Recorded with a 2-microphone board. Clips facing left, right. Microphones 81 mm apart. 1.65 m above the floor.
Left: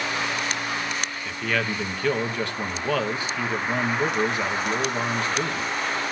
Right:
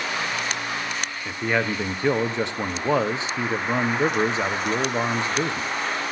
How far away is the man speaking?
About 1.3 m.